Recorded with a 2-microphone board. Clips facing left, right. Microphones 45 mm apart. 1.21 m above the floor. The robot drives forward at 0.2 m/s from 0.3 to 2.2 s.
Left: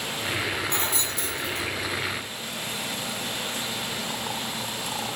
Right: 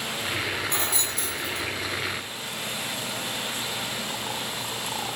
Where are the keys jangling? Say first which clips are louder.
Even; 30° left (ahead or behind), 1.0 m; by 1.7 s 25° left (ahead or behind), 1.2 m.